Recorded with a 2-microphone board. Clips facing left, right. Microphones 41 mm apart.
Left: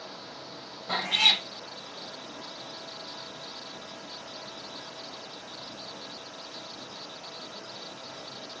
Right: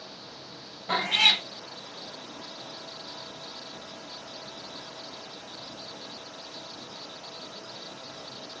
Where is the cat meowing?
35° right (ahead or behind), 0.9 m.